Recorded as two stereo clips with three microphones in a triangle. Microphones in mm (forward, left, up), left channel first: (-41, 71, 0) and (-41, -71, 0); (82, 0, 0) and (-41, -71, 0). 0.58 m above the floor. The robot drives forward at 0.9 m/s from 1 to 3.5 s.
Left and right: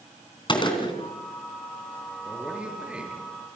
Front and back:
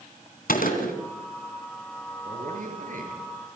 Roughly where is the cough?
No cough in this recording.